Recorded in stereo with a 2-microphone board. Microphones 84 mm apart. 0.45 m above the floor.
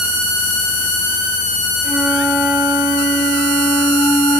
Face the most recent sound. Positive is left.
turn(degrees=0)  # may be behind; listen again after turning